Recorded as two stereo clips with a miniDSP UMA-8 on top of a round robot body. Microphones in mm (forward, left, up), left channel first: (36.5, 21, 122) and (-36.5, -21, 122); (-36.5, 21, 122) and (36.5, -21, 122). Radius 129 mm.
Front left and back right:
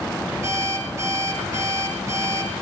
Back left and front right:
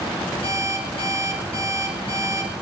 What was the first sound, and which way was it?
An alarm clock, 155° left.